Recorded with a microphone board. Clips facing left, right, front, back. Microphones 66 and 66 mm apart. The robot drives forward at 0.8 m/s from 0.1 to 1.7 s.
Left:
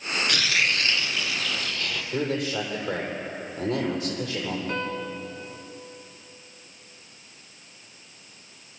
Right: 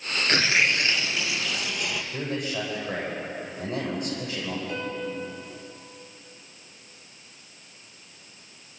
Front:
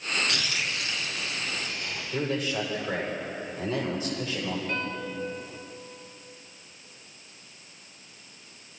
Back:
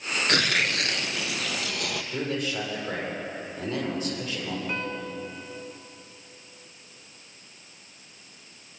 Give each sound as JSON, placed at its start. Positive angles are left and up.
{"t": 0.3, "sound": "tearing paper", "azimuth_deg": -145, "distance_m": 0.7}
{"t": 2.1, "sound": "a man speaking", "azimuth_deg": 95, "distance_m": 8.5}
{"t": 4.7, "sound": "a piano", "azimuth_deg": 110, "distance_m": 2.0}